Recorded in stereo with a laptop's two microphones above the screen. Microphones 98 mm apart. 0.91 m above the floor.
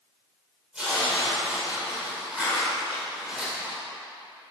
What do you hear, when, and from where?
0.7 s tearing paper: 10° right (ahead or behind), 2.5 m